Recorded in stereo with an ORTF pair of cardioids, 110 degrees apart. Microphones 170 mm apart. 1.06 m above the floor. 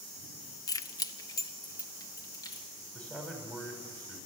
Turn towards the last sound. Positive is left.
turn(degrees=5)